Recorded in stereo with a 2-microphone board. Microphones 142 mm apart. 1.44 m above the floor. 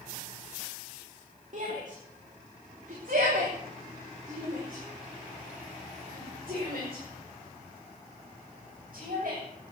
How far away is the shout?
About 3 m.